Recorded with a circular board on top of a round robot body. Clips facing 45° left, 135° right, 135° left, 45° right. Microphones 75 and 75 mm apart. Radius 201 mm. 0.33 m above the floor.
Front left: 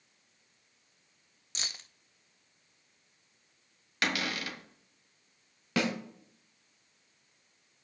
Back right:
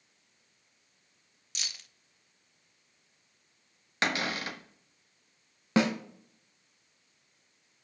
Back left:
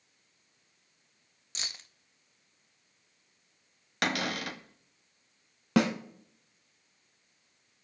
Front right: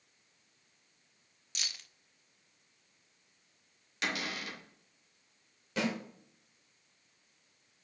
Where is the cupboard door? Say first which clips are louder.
Back right 2 dB, back left 6 dB; 165° left, 1.4 m.